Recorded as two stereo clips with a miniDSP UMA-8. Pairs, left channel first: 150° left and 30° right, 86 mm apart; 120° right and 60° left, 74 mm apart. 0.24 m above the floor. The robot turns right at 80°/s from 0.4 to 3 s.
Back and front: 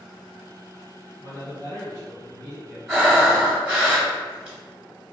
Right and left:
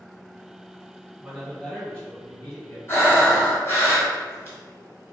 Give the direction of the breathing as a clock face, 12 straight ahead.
4 o'clock.